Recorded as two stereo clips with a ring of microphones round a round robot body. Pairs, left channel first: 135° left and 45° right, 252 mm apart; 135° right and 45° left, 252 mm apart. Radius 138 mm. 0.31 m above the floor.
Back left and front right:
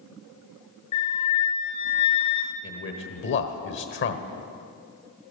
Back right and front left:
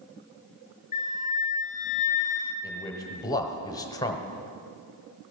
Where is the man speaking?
155° left, 1.2 m.